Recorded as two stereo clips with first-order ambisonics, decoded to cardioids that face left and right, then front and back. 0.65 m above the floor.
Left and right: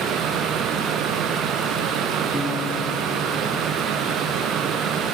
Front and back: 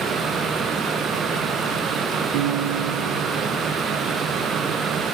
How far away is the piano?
About 2.5 m.